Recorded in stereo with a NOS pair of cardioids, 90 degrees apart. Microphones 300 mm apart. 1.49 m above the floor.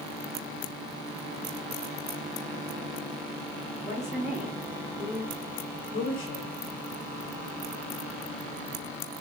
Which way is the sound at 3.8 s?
10° right.